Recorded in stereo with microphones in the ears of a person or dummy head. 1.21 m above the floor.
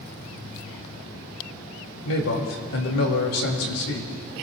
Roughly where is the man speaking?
Left.